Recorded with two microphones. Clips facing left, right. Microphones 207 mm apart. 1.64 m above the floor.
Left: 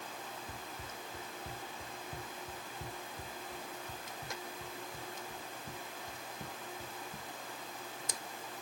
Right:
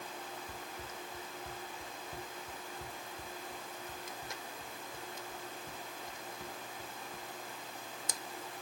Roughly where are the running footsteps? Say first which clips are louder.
Right 1 dB; centre.